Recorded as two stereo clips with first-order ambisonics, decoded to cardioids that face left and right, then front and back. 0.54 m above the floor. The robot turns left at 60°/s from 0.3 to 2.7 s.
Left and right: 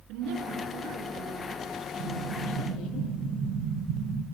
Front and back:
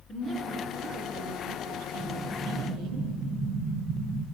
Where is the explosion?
85° right, 3 m; by 4.2 s 125° right, 3 m.